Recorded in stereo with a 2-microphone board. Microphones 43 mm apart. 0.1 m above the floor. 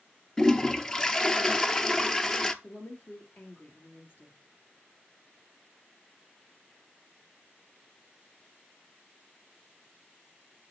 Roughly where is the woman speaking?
Left.